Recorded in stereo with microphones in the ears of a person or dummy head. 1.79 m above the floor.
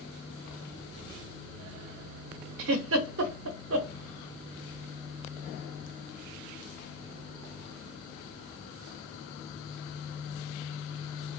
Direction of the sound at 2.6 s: 60° right (ahead or behind).